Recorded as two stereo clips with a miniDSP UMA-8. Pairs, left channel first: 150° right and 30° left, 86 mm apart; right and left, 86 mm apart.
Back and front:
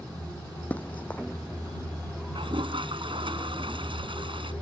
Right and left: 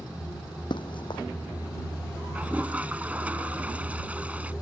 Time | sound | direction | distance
0.7 | running footsteps | 80° right | ?
2.4 | a toilet flushing | 15° left | ?